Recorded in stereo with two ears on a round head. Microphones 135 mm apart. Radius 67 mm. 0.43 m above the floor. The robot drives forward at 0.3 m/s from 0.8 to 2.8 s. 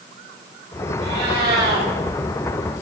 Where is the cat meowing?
75° right (ahead or behind), 6.5 m.